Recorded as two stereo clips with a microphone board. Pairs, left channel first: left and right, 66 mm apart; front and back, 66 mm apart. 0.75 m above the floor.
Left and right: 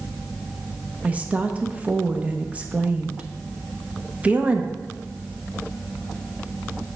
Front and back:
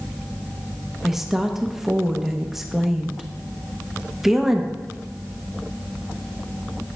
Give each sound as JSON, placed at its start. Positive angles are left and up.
{"t": 1.0, "sound": "a woman speaking", "azimuth_deg": -105, "distance_m": 0.6}